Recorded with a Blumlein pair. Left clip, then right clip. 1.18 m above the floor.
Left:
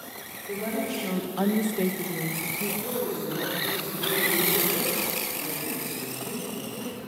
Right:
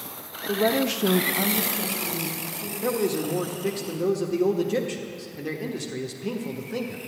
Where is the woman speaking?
60° right, 1.2 m; by 2.7 s 50° left, 1.9 m.